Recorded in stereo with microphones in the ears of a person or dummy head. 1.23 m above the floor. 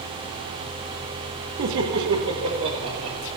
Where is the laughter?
70° right (ahead or behind), 1.2 m.